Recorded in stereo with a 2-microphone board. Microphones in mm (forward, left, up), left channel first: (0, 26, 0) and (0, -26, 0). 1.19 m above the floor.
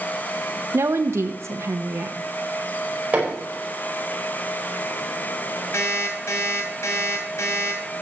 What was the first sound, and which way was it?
A woman speaking, 65° right (ahead or behind).